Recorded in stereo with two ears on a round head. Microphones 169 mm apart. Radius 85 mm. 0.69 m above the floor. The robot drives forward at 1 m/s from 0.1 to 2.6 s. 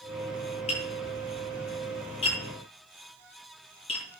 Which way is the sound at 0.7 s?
35° left (ahead or behind).